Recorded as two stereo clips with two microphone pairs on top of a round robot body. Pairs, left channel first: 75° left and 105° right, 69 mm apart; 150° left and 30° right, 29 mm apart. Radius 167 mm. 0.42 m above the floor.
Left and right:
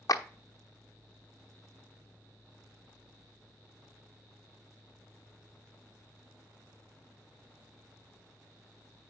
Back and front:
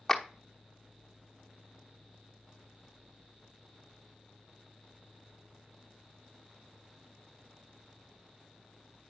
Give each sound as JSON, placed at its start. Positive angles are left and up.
{"t": 0.1, "sound": "a clap", "azimuth_deg": 60, "distance_m": 1.2}